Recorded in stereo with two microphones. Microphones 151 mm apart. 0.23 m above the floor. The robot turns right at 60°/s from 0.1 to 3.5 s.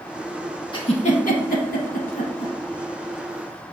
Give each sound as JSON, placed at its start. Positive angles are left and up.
{"t": 0.7, "sound": "a giggle", "side_deg": 30, "distance_m": 0.6}